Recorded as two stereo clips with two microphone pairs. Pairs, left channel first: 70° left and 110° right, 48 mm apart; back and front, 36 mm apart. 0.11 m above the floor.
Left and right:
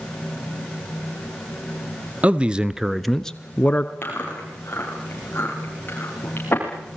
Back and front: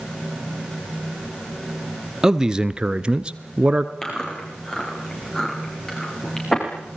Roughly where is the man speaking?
Ahead right.